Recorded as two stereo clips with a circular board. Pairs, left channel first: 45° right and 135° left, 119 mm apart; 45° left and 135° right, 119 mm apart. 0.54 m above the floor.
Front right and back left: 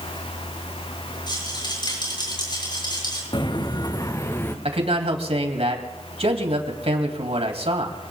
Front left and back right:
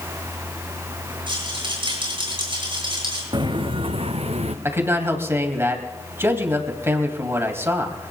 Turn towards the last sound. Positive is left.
turn(degrees=160)